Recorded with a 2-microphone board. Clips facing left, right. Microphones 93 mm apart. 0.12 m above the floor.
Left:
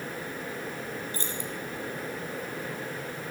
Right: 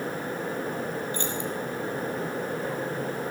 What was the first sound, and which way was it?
Keys jangling, 40° left (ahead or behind).